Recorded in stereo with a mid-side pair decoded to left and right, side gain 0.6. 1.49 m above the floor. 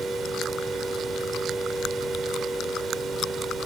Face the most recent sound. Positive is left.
turn(degrees=-40)